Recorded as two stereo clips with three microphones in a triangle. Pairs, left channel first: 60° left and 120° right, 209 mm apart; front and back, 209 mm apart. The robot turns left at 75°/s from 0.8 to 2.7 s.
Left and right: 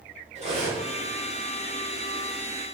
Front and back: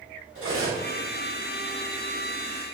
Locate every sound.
0.3 s cutlery clinking: 175° right, 1.2 m; by 0.9 s straight behind, 1.2 m